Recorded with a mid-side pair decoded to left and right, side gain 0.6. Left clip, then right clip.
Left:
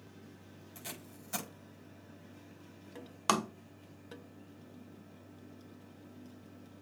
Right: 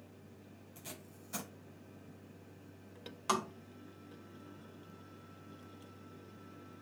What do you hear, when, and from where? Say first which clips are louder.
0.8 s tape being pulled: left 4 dB; 40° left, 5.5 m
3.3 s tapping: left 4 dB; 45° left, 1.4 m